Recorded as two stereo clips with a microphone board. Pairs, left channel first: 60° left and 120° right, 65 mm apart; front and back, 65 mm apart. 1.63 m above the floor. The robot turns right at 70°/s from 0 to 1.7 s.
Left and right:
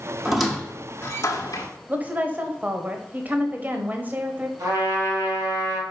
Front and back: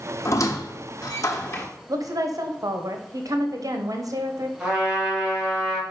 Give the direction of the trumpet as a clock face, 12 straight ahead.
3 o'clock.